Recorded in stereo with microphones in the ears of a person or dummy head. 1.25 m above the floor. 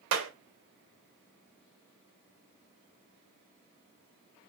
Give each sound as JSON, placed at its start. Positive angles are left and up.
{"t": 0.1, "sound": "a clap", "side_deg": -70, "distance_m": 0.6}